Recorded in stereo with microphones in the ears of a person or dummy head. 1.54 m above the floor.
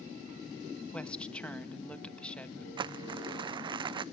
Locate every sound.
0.9 s a woman speaking: 10° left (ahead or behind), 1.7 m
2.8 s crumpling: 30° right (ahead or behind), 0.7 m